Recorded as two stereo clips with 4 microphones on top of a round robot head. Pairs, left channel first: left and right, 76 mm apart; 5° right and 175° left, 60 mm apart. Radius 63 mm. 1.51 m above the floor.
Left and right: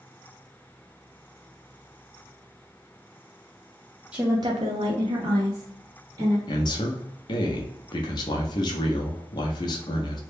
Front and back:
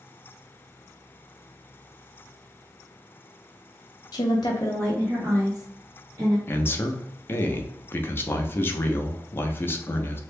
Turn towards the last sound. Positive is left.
turn(degrees=50)